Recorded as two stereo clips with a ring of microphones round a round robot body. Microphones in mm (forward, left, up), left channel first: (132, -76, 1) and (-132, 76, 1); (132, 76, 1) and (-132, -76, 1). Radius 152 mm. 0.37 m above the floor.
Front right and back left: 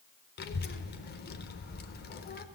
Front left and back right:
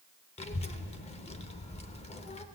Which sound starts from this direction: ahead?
A child speaking, at 0.4 s.